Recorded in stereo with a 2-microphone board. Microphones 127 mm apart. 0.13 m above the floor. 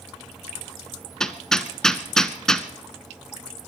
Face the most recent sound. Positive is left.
turn(degrees=5)  # may be behind; listen again after turning